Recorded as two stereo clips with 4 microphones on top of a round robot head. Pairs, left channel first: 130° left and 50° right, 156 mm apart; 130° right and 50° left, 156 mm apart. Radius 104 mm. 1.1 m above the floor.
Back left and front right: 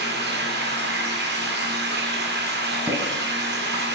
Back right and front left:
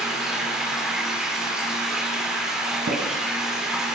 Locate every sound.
0.0 s running water: 35° right, 3 m
2.9 s tapping: 20° left, 5 m